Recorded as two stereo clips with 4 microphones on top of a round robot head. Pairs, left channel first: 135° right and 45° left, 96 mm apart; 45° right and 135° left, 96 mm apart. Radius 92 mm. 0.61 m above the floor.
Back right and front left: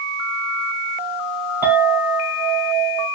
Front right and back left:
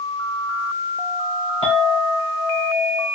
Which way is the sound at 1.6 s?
25° right.